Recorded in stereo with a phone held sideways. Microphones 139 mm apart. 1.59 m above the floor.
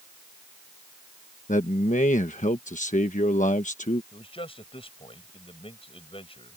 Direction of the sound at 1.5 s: 65° left (ahead or behind).